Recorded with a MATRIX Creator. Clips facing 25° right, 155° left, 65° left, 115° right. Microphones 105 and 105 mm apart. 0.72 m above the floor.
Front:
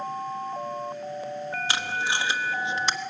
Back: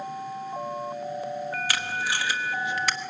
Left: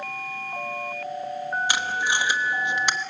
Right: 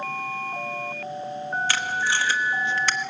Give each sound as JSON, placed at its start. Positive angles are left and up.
{"t": 1.7, "sound": "tape being pulled", "azimuth_deg": 15, "distance_m": 1.1}